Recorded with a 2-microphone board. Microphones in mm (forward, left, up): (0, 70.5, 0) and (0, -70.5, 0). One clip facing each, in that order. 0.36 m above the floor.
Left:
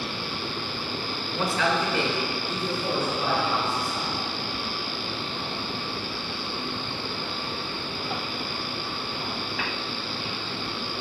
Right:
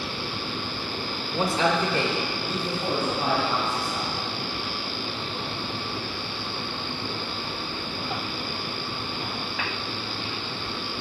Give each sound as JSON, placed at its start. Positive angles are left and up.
{"t": 1.3, "sound": "a man speaking", "side_deg": -20, "distance_m": 0.9}